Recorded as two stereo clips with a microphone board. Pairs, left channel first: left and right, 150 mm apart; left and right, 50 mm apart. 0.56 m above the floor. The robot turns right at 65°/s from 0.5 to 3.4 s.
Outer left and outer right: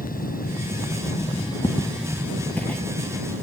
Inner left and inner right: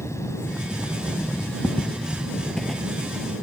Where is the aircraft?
70° left (ahead or behind); by 3.4 s 75° right (ahead or behind).